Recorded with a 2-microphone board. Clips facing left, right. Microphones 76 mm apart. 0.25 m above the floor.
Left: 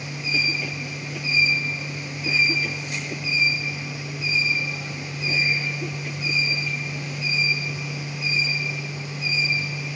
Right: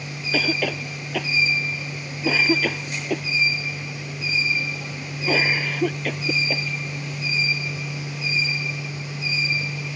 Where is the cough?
80° right.